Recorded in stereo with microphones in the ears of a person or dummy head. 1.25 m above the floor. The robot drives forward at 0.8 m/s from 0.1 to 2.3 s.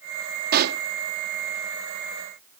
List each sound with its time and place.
0.5 s a pop: 55° right (ahead or behind); by 0.8 s 60° right (ahead or behind)